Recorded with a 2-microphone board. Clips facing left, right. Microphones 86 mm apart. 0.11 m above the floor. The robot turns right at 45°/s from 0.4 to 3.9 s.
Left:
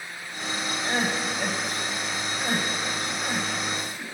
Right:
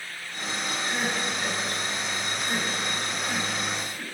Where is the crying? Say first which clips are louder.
Left 3 dB; 60° left (ahead or behind), 3.5 m; by 4.1 s 15° right (ahead or behind), 3.5 m.